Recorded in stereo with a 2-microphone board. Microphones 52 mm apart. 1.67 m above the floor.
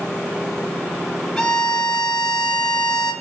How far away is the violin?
About 1.0 m.